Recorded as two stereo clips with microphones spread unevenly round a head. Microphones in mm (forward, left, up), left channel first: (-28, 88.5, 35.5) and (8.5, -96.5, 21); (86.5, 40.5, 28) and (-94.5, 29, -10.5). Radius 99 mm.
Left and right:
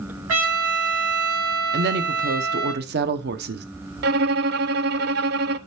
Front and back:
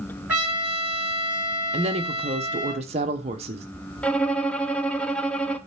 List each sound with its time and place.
0.3 s a trumpet: 90° right, 5 m
1.7 s a woman speaking: 110° right, 0.9 m
4.0 s a violin: 65° right, 0.5 m